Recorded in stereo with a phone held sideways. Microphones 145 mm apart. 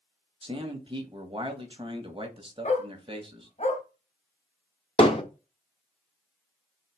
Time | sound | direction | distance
0.4 | a man speaking | 35° right (ahead or behind) | 1.3 m
2.6 | a dog barking | 45° left (ahead or behind) | 1.1 m
5.0 | hammering | 35° left (ahead or behind) | 1.2 m